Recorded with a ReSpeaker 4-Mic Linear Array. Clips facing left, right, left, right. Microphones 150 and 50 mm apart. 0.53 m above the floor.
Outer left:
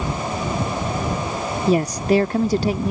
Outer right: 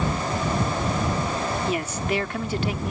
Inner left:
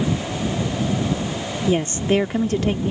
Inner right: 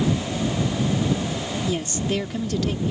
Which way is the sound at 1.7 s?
35° left (ahead or behind).